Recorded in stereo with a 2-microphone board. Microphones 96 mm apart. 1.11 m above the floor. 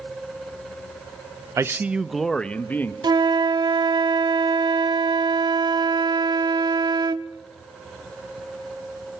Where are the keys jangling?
No keys jangling in this recording.